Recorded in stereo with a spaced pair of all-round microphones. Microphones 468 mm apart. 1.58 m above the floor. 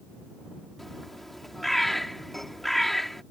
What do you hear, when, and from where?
0.8 s a bird: centre (ahead or behind)